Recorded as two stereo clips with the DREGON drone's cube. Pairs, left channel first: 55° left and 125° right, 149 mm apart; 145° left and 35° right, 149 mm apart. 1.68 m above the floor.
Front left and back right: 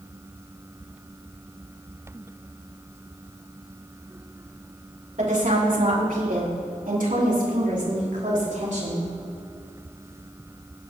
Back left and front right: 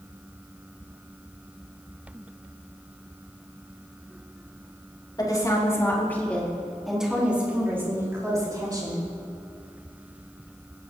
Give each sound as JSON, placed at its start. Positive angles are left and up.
{"t": 5.2, "sound": "a woman speaking", "azimuth_deg": -150, "distance_m": 4.0}